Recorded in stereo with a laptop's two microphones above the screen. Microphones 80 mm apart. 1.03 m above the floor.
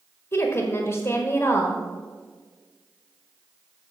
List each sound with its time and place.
0.3 s a woman speaking: 30° left (ahead or behind), 1.4 m